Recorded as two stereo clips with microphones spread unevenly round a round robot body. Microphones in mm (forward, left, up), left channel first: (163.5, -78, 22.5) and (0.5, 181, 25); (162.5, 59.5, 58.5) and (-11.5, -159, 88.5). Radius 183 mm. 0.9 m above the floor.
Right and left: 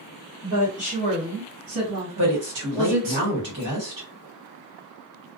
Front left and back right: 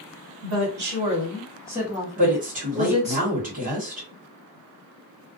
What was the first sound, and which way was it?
A woman speaking, 165° right.